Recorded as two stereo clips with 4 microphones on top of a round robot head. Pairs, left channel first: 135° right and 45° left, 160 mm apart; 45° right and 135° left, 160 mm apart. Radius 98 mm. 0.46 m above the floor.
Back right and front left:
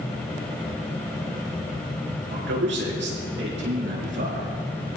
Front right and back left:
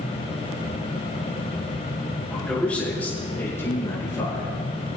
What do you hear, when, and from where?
2.3 s a man speaking: 40° left, 6 m; by 4.5 s 25° left, 6.5 m